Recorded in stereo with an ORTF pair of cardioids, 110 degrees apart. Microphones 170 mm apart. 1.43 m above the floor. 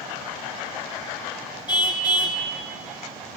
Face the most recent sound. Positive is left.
turn(degrees=30)